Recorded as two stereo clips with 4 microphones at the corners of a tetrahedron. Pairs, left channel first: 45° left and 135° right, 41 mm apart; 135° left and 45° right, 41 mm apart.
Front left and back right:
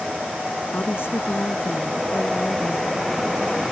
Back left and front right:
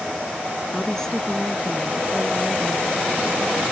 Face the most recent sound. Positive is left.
turn(degrees=55)